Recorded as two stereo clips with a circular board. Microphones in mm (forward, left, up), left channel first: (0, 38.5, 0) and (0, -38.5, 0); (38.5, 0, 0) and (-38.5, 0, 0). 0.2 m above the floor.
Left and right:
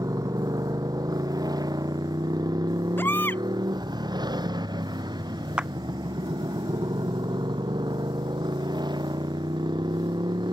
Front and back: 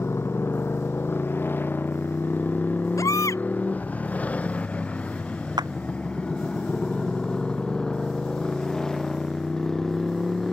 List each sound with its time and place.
0.0 s a motorcycle: 55° right; by 10.5 s 85° right
3.0 s a baby crying: 30° left
5.6 s a clap: 165° right